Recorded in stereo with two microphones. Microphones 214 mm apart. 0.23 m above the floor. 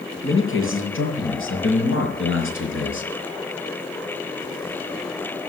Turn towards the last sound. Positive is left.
turn(degrees=65)  # may be behind; listen again after turning